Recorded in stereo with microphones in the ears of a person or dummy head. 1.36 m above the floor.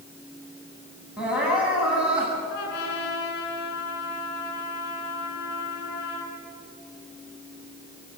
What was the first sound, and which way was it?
Crying, 10° right (ahead or behind).